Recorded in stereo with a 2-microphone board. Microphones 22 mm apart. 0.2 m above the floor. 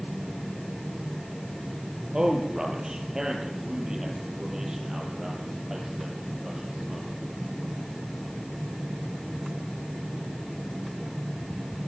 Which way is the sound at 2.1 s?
35° right (ahead or behind).